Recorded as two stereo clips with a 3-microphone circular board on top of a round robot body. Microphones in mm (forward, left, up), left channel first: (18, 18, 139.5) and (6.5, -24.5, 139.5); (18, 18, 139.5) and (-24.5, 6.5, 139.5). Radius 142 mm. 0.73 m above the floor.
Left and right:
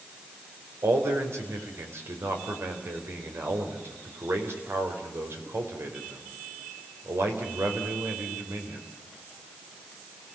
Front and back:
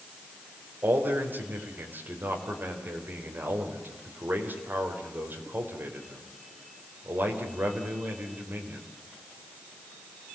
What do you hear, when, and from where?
0.8 s a man speaking: 125° right, 4.5 m